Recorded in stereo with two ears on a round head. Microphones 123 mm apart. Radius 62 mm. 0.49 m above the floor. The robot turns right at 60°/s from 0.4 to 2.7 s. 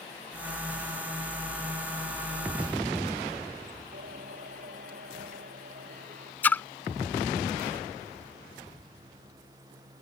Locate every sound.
3.9 s singing: 65° right (ahead or behind)
6.4 s a splash: 10° left (ahead or behind)